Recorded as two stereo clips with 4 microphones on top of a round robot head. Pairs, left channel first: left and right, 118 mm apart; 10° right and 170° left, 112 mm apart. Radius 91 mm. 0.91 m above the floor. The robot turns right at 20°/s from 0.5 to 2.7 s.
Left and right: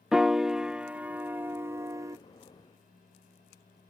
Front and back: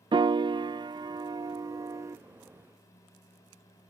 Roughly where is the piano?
Behind.